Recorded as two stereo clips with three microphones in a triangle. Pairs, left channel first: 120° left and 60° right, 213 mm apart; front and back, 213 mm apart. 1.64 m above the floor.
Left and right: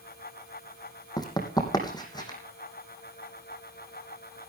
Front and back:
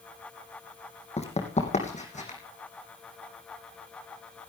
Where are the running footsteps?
50° left, 3 m.